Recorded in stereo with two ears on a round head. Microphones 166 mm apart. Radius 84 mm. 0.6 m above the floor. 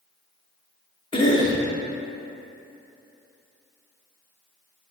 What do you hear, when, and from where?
1.1 s a cough: 25° left (ahead or behind), 0.8 m